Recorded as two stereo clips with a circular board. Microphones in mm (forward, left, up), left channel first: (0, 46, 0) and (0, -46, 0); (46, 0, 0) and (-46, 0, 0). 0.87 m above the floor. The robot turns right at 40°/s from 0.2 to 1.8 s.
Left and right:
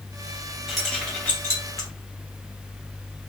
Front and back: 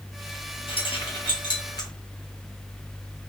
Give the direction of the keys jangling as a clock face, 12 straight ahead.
12 o'clock.